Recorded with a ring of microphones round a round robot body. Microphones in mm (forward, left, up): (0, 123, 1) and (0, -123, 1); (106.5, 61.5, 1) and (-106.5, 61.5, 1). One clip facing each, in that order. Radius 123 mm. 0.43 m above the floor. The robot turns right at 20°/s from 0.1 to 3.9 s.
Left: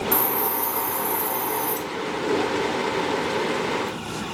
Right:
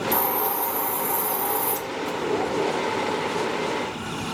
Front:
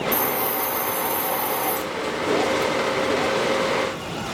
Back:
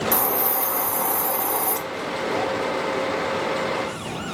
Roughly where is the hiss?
Behind.